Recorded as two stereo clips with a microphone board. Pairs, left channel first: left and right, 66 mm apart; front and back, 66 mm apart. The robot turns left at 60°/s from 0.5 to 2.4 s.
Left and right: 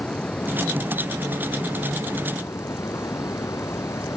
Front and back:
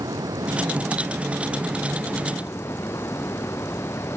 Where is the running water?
160° left; by 4.2 s 45° left.